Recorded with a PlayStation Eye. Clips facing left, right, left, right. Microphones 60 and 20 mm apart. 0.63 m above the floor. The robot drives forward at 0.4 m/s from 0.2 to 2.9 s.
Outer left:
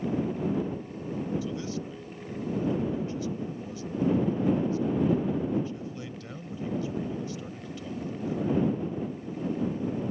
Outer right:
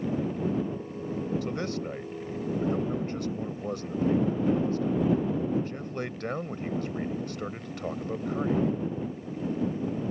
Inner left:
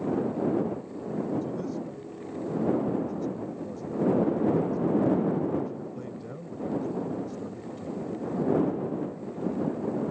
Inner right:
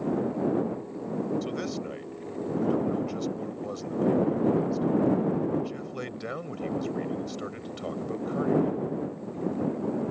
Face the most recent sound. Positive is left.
turn(degrees=-75)  # may be behind; listen again after turning